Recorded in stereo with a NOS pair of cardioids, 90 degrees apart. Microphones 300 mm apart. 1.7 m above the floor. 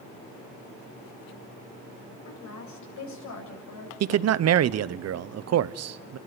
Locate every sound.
2.2 s a woman speaking: 70° left, 8 m
4.0 s a man speaking: 55° right, 0.8 m